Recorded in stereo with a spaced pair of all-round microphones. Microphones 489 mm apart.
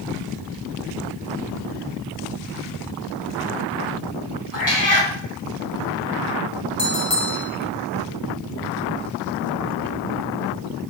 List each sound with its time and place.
4.5 s a cat meowing: 40° left (ahead or behind), 1.6 m
6.8 s a bell: 65° left (ahead or behind), 1.2 m